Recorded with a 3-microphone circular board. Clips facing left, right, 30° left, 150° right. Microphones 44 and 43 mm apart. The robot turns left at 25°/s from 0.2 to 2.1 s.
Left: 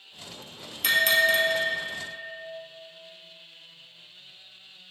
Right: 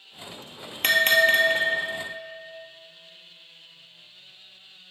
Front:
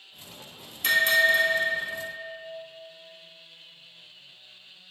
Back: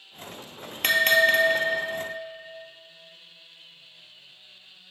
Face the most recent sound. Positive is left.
turn(degrees=-155)